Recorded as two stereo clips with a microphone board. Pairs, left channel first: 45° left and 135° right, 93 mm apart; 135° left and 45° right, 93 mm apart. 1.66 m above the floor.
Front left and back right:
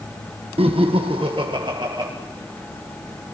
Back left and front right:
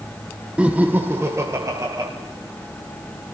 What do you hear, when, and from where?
0.6 s laughter: 125° right, 1.3 m; by 2.1 s 95° right, 2.0 m